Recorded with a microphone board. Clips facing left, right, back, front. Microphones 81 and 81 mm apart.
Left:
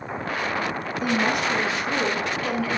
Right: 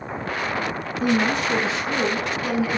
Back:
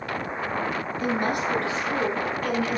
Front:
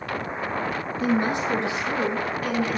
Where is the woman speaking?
50° right, 1.9 m; by 2.8 s 120° right, 1.3 m.